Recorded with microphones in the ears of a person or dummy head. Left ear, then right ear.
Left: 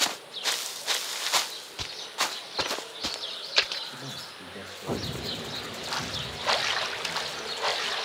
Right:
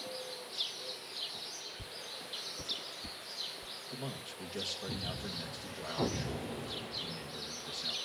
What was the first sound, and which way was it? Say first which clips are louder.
A man speaking: left 4 dB; 60° right (ahead or behind).